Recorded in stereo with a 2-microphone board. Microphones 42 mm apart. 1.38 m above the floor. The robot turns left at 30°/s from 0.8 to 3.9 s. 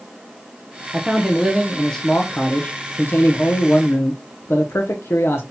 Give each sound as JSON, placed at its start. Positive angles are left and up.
{"t": 0.9, "sound": "a man speaking", "azimuth_deg": -160, "distance_m": 0.7}